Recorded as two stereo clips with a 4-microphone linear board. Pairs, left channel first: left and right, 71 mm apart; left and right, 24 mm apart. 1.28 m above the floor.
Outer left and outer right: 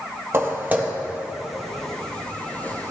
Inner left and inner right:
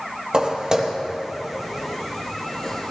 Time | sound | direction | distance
0.3 | footsteps | 30° right (ahead or behind) | 1.7 m